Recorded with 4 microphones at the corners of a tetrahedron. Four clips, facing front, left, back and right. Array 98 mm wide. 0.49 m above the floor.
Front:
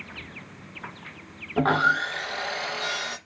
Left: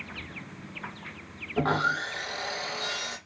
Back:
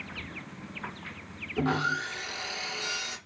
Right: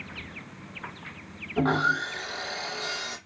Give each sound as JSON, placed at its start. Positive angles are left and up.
{"t": 1.6, "sound": "sawing", "azimuth_deg": 0, "distance_m": 0.5}